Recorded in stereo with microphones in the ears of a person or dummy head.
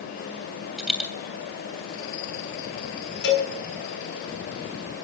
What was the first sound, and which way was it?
A dropped coin, centre (ahead or behind).